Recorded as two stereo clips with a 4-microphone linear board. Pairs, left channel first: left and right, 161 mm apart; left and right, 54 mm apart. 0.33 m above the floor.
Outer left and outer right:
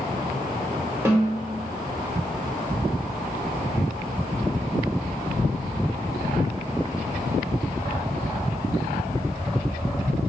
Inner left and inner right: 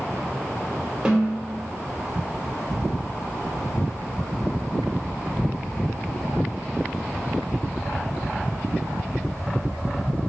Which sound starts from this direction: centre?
A snare drum, at 1.1 s.